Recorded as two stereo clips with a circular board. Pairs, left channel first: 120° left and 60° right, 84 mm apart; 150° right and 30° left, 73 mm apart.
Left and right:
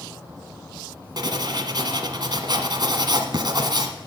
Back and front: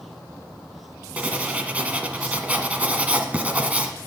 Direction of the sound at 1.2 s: 40° right.